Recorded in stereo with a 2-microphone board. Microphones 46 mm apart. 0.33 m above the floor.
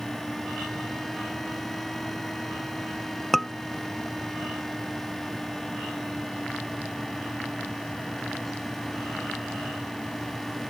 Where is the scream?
5° left (ahead or behind).